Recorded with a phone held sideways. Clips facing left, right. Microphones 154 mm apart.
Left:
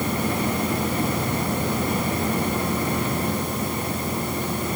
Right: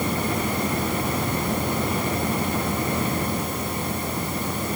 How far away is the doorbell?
I don't hear a doorbell.